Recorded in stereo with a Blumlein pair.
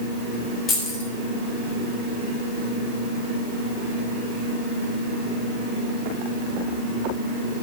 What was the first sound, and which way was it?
Keys jangling, 30° left.